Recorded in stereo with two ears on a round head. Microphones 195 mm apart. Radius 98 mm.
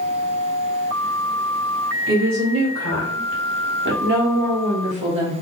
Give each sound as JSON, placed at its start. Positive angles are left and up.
{"t": 2.1, "sound": "a woman speaking", "side_deg": -70, "distance_m": 2.5}